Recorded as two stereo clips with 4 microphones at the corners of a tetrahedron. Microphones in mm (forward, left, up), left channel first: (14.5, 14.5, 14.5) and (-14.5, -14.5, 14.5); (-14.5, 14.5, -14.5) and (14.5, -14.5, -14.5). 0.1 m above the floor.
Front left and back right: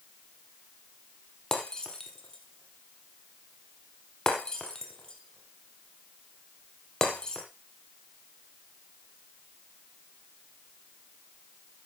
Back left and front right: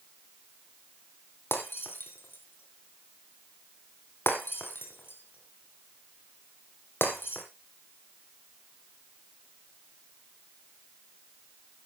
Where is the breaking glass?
115° left, 2.5 m.